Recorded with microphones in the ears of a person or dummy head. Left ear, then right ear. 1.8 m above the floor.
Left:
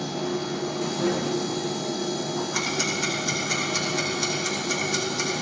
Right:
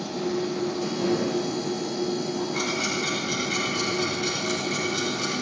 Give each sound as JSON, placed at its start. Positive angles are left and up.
{"t": 0.0, "sound": "a machine running", "side_deg": 45, "distance_m": 2.0}
{"t": 2.5, "sound": "ticking", "side_deg": 90, "distance_m": 8.5}